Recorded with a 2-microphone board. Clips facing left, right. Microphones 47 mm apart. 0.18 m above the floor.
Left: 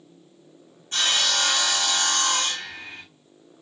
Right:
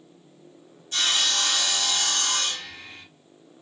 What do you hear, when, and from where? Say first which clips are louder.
0.9 s sawing: left 2 dB; 40° left (ahead or behind), 2 m